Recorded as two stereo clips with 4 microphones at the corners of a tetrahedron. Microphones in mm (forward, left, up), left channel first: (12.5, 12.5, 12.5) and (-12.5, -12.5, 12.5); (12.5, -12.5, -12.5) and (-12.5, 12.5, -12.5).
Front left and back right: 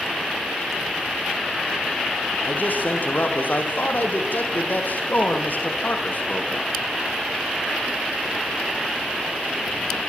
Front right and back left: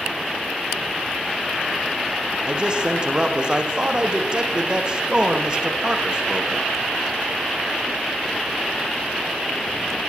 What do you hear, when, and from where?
2.5 s a man speaking: 70° left, 5.5 m